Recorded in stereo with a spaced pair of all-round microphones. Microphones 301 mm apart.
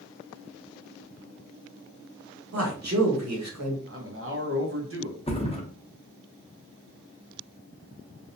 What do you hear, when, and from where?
2.5 s a man speaking: 60° right (ahead or behind), 1.2 m
3.9 s a man speaking: 45° right (ahead or behind), 0.7 m
5.3 s a thud: 20° left (ahead or behind), 0.6 m